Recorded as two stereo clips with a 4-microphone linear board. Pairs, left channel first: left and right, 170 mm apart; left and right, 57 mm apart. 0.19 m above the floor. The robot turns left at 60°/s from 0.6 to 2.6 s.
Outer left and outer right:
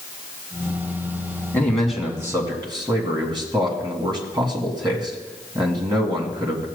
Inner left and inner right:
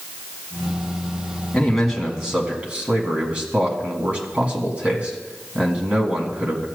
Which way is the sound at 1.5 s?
20° left.